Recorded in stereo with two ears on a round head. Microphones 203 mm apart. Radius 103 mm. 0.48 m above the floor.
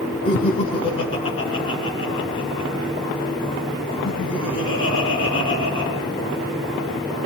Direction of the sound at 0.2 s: 25° left (ahead or behind).